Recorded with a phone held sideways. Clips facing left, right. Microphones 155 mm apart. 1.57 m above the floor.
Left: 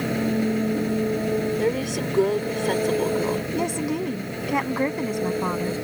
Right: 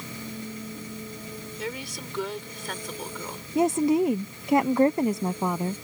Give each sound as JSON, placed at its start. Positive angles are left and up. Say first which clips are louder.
{"t": 0.0, "sound": "an engine running", "louder": "left 15 dB", "side_deg": 75}
{"t": 1.6, "sound": "a woman speaking", "louder": "left 12 dB", "side_deg": 50}
{"t": 3.5, "sound": "a woman speaking", "louder": "right 3 dB", "side_deg": -20}